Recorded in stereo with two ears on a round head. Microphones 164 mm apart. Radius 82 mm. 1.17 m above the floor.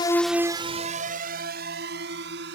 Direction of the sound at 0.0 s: 25° left (ahead or behind).